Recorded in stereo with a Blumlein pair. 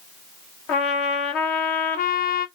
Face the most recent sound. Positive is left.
turn(degrees=40)